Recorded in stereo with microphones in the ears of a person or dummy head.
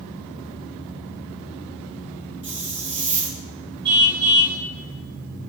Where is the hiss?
40° right (ahead or behind), 3.5 m.